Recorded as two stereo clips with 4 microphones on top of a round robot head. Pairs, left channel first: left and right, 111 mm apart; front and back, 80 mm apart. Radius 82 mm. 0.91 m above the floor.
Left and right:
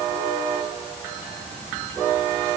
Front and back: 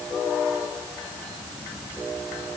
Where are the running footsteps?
No running footsteps in this recording.